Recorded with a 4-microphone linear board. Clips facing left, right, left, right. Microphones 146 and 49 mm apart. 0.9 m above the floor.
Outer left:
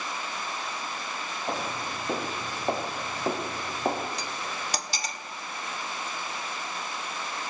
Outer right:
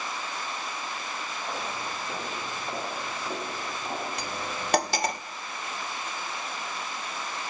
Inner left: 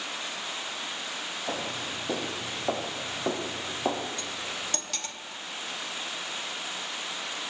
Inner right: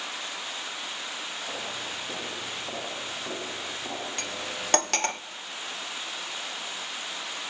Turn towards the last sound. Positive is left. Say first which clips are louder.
# outer right 2 dB, inner right 1 dB
turn(degrees=-65)  # may be behind; listen again after turning